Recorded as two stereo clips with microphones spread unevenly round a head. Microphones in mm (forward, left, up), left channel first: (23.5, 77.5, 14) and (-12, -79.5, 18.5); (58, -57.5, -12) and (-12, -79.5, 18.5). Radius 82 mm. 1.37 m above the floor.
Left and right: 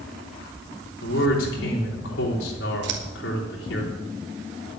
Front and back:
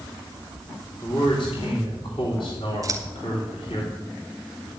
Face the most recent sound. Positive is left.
turn(degrees=-125)